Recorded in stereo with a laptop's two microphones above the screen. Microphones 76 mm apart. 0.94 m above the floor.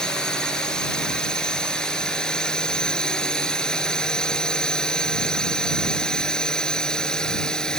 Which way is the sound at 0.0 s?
10° left (ahead or behind).